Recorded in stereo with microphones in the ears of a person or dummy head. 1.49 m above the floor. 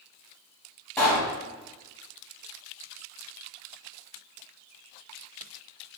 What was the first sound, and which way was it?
A pop, 10° left (ahead or behind).